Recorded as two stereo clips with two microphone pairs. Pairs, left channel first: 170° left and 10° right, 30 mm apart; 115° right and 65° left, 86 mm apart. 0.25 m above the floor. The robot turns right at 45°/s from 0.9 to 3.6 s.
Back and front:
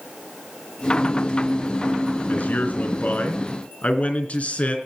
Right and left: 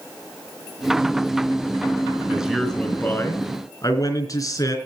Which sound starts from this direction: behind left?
A man speaking, at 2.3 s.